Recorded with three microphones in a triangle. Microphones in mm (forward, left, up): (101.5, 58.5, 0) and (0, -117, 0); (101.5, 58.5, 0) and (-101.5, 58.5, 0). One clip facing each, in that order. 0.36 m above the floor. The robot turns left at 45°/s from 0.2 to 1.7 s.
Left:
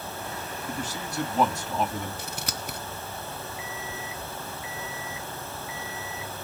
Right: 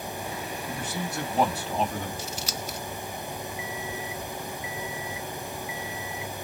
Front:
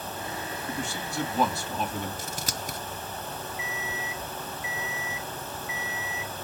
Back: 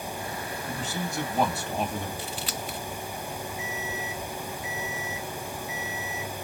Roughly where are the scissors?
Ahead left.